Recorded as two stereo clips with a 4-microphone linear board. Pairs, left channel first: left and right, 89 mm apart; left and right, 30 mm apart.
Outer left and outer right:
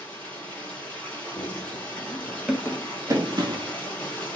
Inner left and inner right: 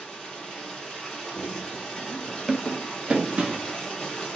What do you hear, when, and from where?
0.0 s running water: 15° left (ahead or behind), 1.8 m
1.4 s running footsteps: 35° left (ahead or behind), 1.2 m; by 3.7 s 60° right (ahead or behind), 1.0 m